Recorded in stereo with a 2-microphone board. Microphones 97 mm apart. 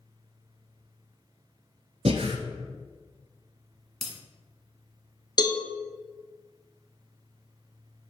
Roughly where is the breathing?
Right.